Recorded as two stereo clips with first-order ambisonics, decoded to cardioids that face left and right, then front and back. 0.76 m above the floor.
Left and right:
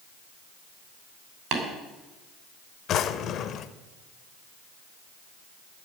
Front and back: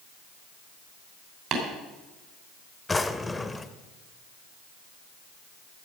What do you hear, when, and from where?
1.5 s tapping: 130° right, 3 m
2.9 s a drawer: 75° left, 0.5 m